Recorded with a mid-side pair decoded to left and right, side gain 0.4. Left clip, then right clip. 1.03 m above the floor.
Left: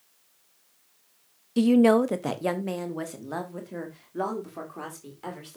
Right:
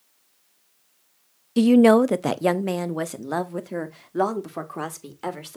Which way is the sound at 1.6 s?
35° right.